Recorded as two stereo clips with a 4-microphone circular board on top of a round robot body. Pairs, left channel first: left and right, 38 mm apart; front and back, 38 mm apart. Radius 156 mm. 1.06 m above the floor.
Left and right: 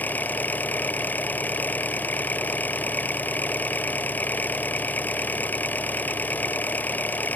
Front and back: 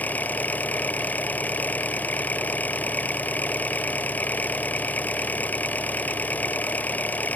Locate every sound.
0.0 s an engine running: 45° left